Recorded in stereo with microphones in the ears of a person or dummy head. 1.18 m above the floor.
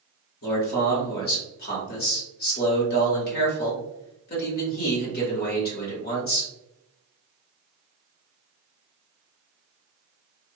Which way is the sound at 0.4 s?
50° left (ahead or behind).